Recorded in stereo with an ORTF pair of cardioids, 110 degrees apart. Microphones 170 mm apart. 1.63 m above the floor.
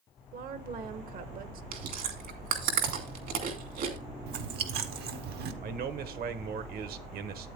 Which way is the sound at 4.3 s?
70° right.